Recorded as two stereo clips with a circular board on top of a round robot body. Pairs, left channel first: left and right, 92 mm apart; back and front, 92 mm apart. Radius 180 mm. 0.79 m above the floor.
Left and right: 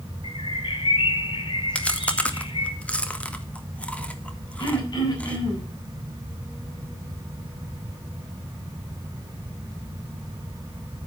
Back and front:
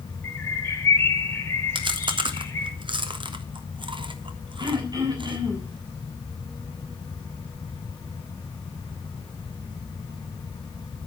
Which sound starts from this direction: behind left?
A bird, at 0.2 s.